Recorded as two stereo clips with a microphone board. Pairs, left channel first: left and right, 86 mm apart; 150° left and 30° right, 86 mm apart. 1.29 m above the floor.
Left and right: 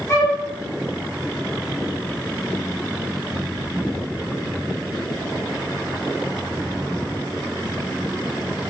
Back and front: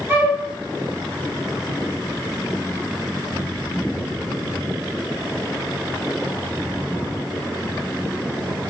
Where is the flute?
35° left, 1.2 m.